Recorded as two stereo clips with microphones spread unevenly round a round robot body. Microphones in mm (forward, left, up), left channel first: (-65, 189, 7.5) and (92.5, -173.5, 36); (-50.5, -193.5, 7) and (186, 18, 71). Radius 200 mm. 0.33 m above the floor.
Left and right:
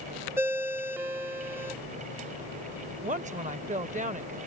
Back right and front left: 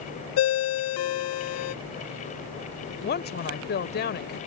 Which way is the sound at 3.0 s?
135° right.